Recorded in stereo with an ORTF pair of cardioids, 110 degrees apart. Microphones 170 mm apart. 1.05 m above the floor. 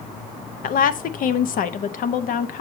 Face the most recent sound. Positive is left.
turn(degrees=55)